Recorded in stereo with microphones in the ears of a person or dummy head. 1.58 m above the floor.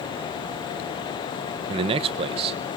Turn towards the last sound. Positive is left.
turn(degrees=-35)  # may be behind; listen again after turning